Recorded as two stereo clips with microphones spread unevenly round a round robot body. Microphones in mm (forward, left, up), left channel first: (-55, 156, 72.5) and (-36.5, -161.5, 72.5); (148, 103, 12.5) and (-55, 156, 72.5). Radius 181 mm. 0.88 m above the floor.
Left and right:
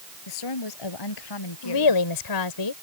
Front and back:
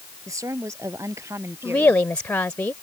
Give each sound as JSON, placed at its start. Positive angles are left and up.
{"t": 0.3, "sound": "a woman speaking", "azimuth_deg": 90}
{"t": 1.6, "sound": "a woman speaking", "azimuth_deg": 70}